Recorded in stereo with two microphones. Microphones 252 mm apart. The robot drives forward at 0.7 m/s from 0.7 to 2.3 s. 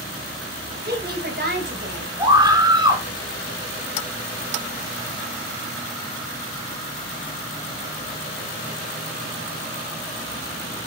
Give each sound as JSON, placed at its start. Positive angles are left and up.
{"t": 0.8, "sound": "a woman speaking", "side_deg": -40, "distance_m": 5.5}
{"t": 2.2, "sound": "a scream", "side_deg": -15, "distance_m": 2.5}